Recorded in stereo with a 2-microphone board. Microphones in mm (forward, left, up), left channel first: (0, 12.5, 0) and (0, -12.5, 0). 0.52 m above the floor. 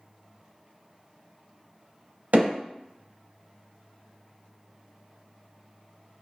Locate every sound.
2.3 s hammering: 85° right, 0.8 m